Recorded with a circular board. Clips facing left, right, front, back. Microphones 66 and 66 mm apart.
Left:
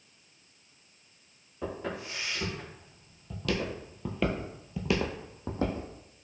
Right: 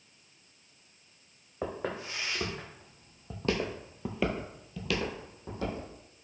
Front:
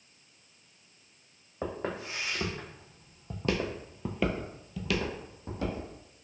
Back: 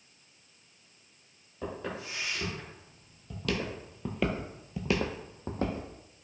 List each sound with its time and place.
1.6 s footsteps: 45° right, 1.9 m; by 5.9 s 135° left, 1.2 m